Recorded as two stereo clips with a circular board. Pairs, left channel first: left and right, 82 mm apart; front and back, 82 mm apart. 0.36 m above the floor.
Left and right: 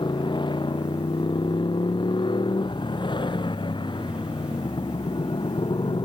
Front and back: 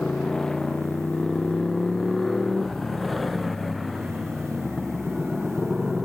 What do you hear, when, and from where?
0.0 s a motorcycle: 80° left; by 6.1 s 95° left